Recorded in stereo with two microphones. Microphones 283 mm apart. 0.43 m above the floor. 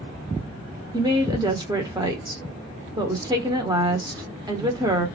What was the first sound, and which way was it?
A woman speaking, 15° right (ahead or behind).